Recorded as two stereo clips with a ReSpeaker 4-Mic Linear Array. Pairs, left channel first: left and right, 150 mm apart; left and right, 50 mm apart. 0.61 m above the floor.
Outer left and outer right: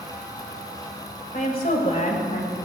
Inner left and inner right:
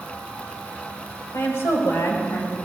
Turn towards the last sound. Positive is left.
turn(degrees=65)  # may be behind; listen again after turning